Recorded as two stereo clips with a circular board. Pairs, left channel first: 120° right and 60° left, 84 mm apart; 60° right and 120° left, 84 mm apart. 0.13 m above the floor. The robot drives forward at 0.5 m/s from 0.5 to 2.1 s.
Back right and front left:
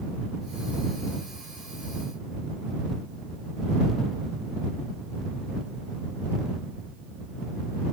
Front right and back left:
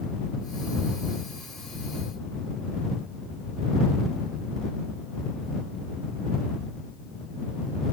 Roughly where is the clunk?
No clunk in this recording.